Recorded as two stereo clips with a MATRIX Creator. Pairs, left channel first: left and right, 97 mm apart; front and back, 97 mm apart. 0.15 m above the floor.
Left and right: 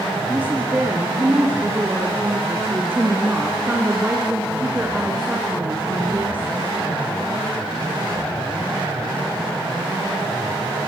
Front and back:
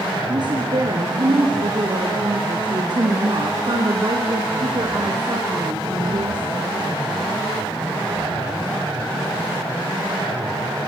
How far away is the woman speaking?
About 3 m.